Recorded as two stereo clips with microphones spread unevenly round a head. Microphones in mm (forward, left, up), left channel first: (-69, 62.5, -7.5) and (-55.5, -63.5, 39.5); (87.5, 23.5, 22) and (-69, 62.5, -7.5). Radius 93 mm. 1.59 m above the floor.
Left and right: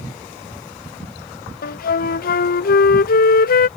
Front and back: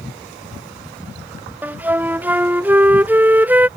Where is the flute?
85° left.